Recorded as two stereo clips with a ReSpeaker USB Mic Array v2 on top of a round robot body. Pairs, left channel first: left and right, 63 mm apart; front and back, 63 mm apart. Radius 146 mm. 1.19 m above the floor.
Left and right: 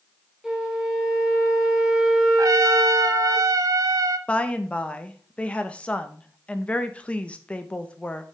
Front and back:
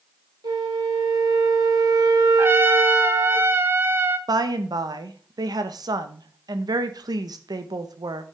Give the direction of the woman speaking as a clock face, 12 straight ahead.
7 o'clock.